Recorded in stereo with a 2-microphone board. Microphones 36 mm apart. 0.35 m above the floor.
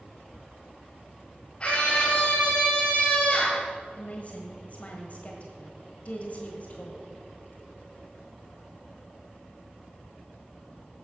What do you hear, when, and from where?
1.6 s a scream: 35° left (ahead or behind), 1.8 m
4.0 s a woman speaking: 45° left (ahead or behind), 1.3 m